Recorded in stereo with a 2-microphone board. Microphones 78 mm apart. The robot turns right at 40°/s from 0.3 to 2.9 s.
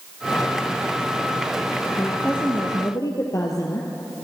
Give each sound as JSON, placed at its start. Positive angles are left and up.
{"t": 2.0, "sound": "a woman speaking", "azimuth_deg": 20, "distance_m": 2.5}